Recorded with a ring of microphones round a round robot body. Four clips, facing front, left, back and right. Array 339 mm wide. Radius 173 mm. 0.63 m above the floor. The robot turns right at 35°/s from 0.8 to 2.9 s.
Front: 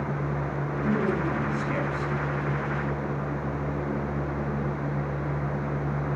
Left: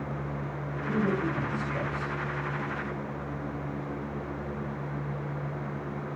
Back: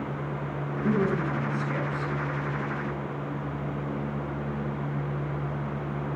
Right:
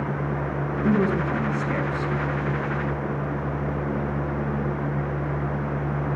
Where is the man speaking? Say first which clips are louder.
Right 6 dB, back 1 dB; 95° right, 6.5 m; by 2.1 s 50° right, 6.5 m.